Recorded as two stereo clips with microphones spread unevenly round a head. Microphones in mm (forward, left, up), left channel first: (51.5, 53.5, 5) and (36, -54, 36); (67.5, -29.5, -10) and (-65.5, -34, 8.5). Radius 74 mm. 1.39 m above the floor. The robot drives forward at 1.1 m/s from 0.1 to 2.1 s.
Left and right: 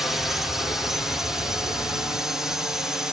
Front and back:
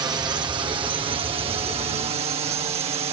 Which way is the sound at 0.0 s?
140° left.